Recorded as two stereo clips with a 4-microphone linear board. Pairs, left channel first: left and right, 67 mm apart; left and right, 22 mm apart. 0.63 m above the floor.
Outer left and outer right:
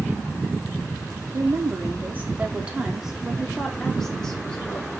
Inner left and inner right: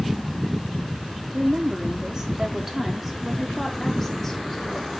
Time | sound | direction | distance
1.3 | a woman speaking | 45° right (ahead or behind) | 1.5 m